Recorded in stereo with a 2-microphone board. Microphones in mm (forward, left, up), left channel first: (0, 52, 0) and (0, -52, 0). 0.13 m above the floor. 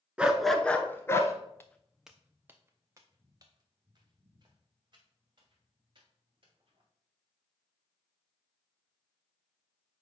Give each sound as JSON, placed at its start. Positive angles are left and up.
{"t": 0.2, "sound": "a dog barking", "side_deg": -10, "distance_m": 0.7}
{"t": 1.6, "sound": "footsteps", "side_deg": 25, "distance_m": 0.6}